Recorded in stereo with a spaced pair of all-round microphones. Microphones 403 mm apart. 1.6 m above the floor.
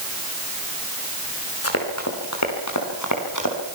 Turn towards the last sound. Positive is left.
turn(degrees=45)  # may be behind; listen again after turning